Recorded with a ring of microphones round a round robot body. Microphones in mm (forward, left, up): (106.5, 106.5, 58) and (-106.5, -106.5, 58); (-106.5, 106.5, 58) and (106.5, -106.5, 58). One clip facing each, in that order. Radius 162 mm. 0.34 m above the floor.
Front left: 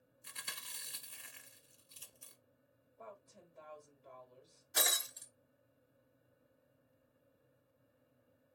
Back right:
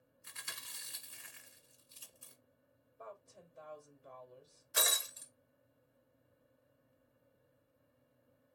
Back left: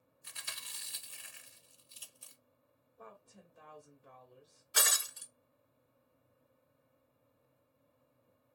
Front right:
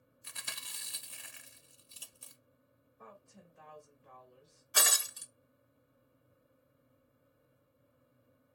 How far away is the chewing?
About 1.0 m.